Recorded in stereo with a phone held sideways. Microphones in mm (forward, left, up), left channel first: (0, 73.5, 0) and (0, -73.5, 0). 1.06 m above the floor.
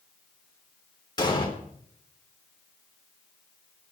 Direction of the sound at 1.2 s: 30° left (ahead or behind).